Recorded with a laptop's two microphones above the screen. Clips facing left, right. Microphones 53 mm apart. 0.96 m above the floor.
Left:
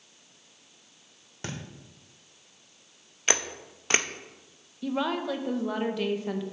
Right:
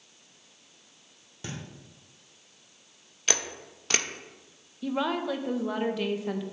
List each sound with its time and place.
1.4 s a thud: 65° left (ahead or behind), 1.1 m
3.3 s a camera shutter: 25° left (ahead or behind), 0.5 m
4.8 s a woman speaking: centre (ahead or behind), 0.6 m